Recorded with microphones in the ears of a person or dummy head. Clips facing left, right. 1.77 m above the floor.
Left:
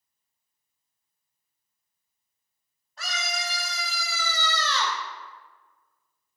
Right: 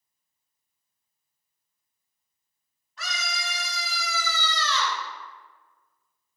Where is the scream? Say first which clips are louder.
Left 2 dB; 35° left (ahead or behind), 2.5 m; by 5.0 s 40° left (ahead or behind), 1.2 m.